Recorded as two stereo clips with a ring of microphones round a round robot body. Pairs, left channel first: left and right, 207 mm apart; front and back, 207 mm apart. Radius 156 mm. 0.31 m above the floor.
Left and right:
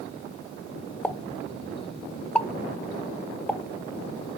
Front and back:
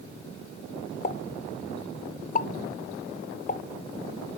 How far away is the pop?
About 0.6 m.